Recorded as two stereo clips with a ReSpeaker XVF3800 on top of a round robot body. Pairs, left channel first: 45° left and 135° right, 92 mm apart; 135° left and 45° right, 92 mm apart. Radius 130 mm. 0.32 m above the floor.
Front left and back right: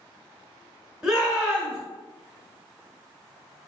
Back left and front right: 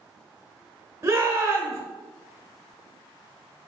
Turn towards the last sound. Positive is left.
turn(degrees=-60)